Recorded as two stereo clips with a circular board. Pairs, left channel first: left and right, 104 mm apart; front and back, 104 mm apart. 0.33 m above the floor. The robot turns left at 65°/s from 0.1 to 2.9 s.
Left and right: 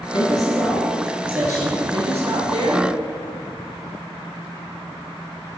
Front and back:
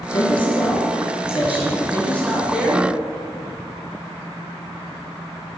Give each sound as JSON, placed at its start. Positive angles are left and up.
{"t": 0.1, "sound": "a man speaking", "azimuth_deg": 55, "distance_m": 5.0}